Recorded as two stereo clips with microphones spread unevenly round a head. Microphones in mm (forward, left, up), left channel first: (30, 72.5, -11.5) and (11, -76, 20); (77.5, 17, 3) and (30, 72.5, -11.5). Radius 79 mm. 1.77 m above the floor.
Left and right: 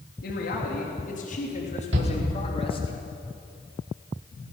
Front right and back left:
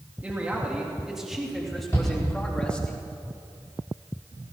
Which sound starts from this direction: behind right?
A shout, at 1.9 s.